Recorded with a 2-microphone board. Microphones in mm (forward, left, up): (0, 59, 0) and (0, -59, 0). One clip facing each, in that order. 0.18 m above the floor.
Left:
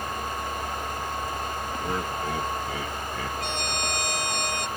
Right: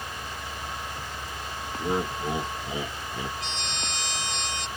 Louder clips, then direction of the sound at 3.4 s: Left 5 dB; 50° left (ahead or behind).